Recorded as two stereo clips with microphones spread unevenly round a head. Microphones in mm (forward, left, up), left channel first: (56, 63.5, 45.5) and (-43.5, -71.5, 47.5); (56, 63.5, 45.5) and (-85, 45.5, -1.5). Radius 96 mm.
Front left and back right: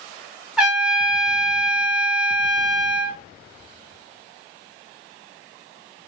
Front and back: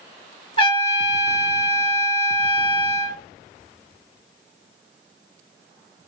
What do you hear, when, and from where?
0.6 s a trumpet: 40° right, 0.7 m